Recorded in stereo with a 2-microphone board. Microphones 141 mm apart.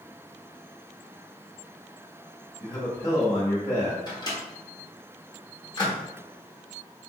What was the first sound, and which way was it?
A man speaking, 20° left (ahead or behind).